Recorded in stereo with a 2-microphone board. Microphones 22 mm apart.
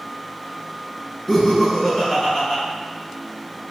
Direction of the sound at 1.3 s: 10° left (ahead or behind).